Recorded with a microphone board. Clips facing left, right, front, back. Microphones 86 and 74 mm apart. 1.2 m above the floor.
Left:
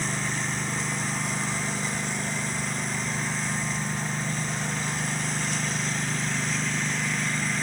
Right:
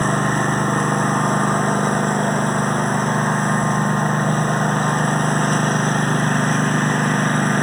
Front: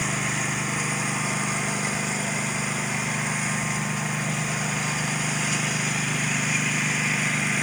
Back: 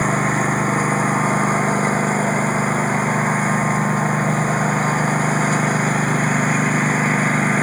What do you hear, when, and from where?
0.0 s a lawn mower: 130° right